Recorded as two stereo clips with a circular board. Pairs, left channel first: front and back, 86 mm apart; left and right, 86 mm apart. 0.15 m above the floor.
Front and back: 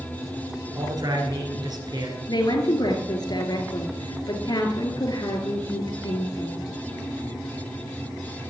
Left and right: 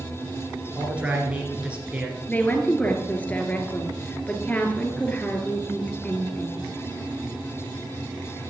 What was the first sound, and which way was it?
A man speaking, 165° right.